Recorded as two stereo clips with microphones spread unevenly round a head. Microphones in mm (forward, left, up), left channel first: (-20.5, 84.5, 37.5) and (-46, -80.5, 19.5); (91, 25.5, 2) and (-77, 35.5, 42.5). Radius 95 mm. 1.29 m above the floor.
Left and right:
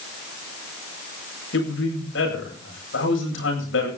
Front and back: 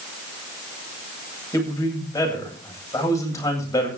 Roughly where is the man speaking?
Left.